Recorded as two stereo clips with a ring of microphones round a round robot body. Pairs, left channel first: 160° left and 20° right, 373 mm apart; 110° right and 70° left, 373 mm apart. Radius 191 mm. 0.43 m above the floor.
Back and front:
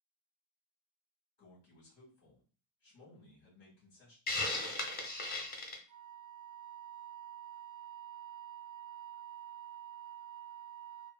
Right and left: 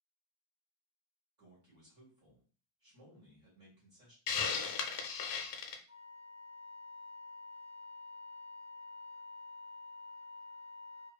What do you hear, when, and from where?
1.4 s a man speaking: 105° left, 1.6 m
4.3 s a hiss: 140° right, 0.5 m
5.9 s a flute: straight ahead, 0.6 m